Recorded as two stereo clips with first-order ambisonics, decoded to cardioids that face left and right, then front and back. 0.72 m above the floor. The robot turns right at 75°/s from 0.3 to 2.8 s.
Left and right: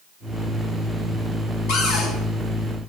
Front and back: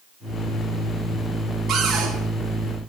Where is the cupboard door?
110° left, 5.5 m; by 2.1 s 145° left, 5.5 m.